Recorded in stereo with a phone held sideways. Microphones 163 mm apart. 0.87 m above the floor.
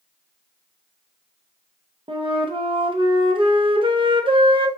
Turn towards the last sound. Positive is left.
turn(degrees=-30)  # may be behind; listen again after turning